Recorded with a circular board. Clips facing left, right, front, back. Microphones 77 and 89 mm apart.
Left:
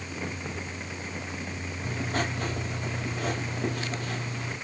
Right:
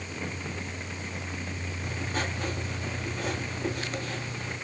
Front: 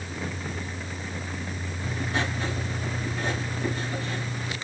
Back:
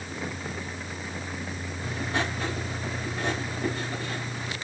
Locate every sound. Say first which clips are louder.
1.8 s writing: left 3 dB, even; 110° left, 7 m